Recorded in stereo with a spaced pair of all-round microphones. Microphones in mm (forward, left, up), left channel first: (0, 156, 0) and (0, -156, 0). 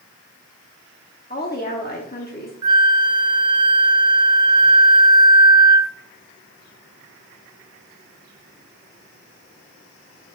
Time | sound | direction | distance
1.3 | a woman speaking | 30° left (ahead or behind) | 1.0 m
2.6 | a flute | 70° right (ahead or behind) | 0.5 m